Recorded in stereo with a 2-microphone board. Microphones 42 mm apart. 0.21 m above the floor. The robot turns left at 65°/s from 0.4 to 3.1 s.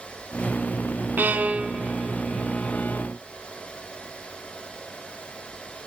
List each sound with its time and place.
1.2 s a violin: 50° right (ahead or behind), 0.8 m; by 3.1 s 50° left (ahead or behind), 0.8 m